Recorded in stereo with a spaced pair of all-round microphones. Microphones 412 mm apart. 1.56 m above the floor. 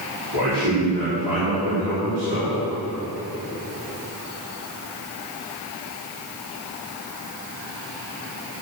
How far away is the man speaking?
About 4.5 m.